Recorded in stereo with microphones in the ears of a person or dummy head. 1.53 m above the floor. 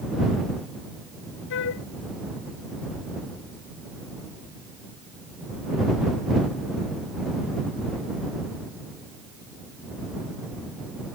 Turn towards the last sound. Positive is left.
turn(degrees=65)  # may be behind; listen again after turning